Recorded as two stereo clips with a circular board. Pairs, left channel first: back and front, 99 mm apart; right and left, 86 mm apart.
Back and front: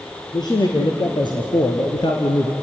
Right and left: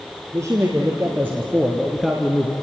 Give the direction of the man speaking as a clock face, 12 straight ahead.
7 o'clock.